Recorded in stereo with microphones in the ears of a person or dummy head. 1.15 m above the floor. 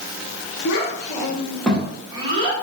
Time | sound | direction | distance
0.7 | a child speaking | 55° left (ahead or behind) | 1.1 m